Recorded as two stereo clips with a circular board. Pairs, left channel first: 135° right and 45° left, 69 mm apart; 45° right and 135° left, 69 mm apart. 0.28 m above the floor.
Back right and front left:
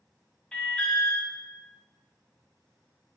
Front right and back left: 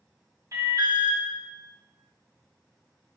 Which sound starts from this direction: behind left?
An alarm, at 0.5 s.